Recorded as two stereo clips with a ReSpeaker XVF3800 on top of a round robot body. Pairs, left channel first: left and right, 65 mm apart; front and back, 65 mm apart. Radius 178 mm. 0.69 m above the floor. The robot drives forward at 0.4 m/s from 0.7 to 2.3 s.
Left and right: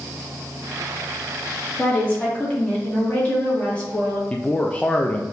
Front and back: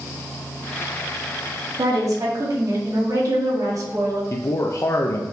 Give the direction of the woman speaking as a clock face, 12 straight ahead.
7 o'clock.